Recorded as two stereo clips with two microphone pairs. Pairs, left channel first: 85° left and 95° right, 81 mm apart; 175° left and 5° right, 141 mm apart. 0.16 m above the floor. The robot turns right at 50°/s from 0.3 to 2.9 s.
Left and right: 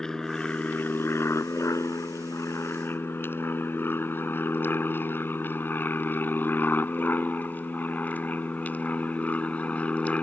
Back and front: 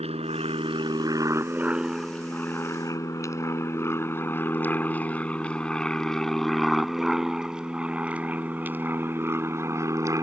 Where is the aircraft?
5° left; by 10.2 s 35° left.